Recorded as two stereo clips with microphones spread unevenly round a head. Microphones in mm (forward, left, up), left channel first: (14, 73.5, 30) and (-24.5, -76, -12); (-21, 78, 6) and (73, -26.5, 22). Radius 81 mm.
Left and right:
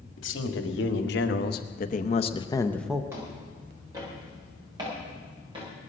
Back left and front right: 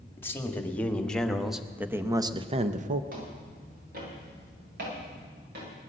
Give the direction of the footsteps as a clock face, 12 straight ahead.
1 o'clock.